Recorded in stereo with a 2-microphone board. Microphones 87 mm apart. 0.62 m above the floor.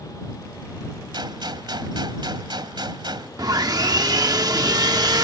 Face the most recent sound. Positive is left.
turn(degrees=-50)  # may be behind; listen again after turning